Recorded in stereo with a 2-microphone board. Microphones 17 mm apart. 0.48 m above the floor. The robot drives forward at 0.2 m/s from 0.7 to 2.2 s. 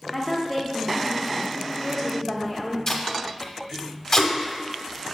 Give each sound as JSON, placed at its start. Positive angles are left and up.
{"t": 0.1, "sound": "a woman speaking", "side_deg": 5, "distance_m": 0.7}
{"t": 2.9, "sound": "tape being pulled", "side_deg": 30, "distance_m": 0.6}